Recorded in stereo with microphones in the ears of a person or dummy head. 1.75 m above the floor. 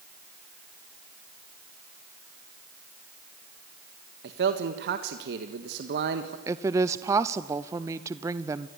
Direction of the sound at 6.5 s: 20° right (ahead or behind).